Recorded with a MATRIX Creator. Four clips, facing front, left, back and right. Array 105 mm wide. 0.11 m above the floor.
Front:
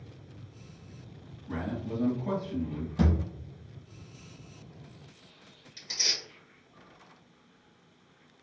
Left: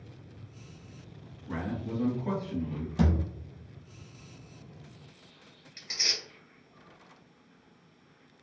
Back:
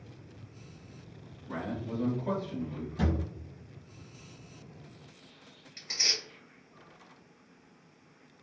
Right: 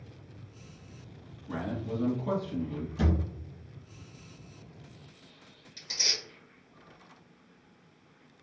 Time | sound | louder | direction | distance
1.5 | a man speaking | even, front 2 dB | 85° left | 1.4 m
3.0 | a thud | left 3 dB, front 3 dB | 65° left | 1.0 m
5.8 | tearing paper | even, back 1 dB | 125° left | 1.9 m